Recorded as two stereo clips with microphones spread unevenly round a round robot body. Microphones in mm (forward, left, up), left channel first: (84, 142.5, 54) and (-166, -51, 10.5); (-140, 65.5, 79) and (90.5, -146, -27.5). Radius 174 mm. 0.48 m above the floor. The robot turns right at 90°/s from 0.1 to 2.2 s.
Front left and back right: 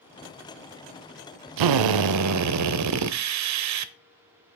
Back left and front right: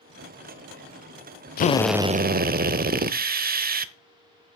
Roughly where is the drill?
Behind.